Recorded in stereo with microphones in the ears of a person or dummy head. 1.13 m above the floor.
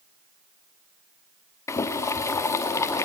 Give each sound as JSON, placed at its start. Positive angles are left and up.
{"t": 1.7, "sound": "boiling", "side_deg": 15, "distance_m": 1.0}